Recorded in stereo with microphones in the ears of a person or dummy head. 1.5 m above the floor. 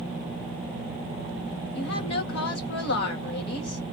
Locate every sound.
1.7 s a woman speaking: 65° left (ahead or behind), 1.6 m